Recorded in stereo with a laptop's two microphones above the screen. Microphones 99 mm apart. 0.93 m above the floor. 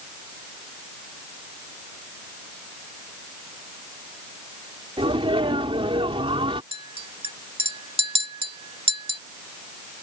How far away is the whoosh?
No whoosh in this recording.